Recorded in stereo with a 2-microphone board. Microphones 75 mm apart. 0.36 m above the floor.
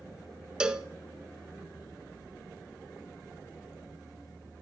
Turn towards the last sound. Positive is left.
turn(degrees=-10)  # may be behind; listen again after turning